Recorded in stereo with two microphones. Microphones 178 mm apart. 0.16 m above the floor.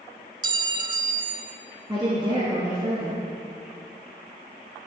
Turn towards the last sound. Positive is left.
turn(degrees=-25)  # may be behind; listen again after turning